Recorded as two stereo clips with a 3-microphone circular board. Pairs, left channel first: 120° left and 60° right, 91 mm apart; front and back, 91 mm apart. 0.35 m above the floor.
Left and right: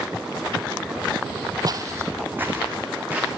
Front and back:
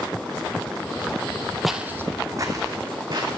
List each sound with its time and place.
1.6 s footsteps: 90° right, 0.6 m; by 3.3 s 135° right, 2 m